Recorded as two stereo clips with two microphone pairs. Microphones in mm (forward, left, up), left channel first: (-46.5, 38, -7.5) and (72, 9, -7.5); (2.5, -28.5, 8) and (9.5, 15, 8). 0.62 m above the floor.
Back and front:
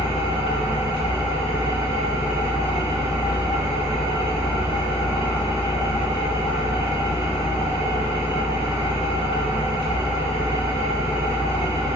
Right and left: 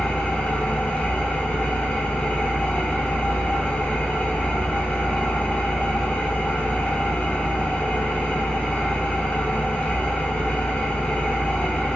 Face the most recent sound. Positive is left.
turn(degrees=-160)